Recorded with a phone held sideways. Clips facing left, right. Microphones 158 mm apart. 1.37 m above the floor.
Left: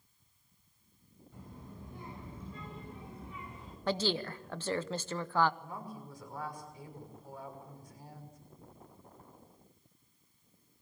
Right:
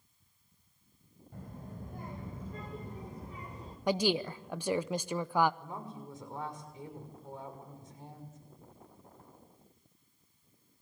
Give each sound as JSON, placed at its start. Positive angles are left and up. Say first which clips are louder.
{"t": 1.3, "sound": "a child speaking", "louder": "right 3 dB", "side_deg": -55, "distance_m": 4.5}
{"t": 3.9, "sound": "a woman speaking", "louder": "right 3 dB", "side_deg": -15, "distance_m": 0.7}
{"t": 5.6, "sound": "a woman speaking", "louder": "right 1 dB", "side_deg": -25, "distance_m": 6.0}